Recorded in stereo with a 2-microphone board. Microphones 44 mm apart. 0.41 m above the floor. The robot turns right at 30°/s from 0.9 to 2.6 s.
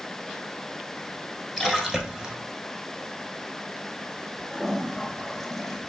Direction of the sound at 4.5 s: 5° left (ahead or behind).